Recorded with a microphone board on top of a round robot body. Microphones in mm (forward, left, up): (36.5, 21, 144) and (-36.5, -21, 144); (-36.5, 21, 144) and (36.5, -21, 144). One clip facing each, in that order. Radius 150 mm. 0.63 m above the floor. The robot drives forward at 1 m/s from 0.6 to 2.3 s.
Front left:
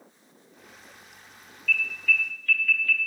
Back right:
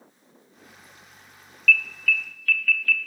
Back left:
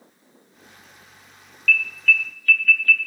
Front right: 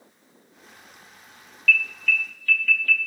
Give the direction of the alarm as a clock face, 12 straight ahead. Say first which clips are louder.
Back right 4 dB, back left 2 dB; 6 o'clock.